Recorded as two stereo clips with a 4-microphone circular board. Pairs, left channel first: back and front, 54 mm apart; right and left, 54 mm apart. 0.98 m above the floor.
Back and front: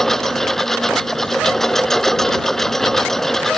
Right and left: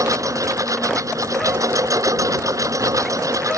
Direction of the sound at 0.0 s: 95° left.